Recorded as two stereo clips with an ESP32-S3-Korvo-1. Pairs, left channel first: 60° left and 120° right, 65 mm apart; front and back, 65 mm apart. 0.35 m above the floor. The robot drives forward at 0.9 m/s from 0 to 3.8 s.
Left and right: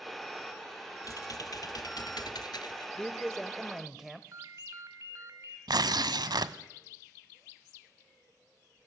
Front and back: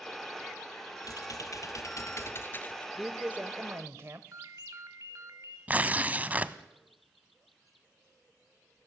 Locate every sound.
1.0 s typing on a keyboard: 30° left, 2.5 m; by 2.9 s 70° left, 1.1 m
3.0 s a man speaking: 100° left, 1.0 m; by 4.2 s 155° left, 1.3 m
4.3 s a ringtone: 150° right, 1.5 m
5.7 s tearing paper: 115° right, 0.8 m